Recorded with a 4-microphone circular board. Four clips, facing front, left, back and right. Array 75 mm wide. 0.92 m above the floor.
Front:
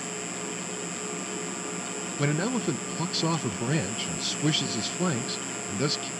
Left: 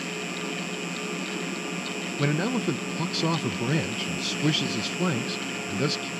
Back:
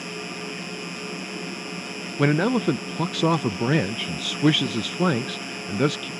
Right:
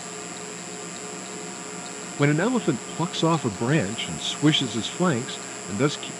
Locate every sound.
0.0 s an insect: 130° left
2.2 s a man speaking: 140° right